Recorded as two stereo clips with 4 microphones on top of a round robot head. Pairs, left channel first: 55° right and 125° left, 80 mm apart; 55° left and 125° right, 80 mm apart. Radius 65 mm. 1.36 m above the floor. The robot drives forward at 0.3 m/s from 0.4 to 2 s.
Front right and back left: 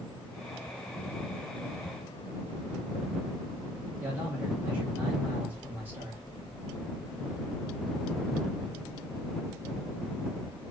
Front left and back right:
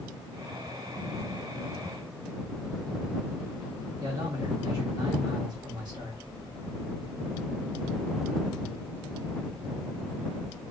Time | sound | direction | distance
4.0 | a man speaking | 165° right | 1.3 m